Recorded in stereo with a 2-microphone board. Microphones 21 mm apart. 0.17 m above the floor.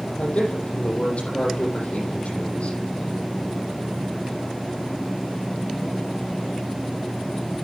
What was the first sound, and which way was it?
A man speaking, 80° left.